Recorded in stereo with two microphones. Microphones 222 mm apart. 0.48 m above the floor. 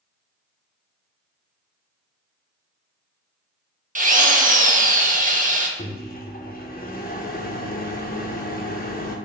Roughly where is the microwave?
Left.